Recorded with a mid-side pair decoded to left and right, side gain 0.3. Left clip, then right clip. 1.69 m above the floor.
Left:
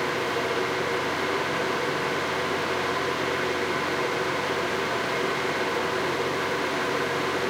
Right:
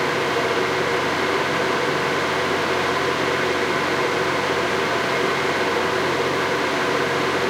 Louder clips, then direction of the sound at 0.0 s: Right 6 dB; 55° right.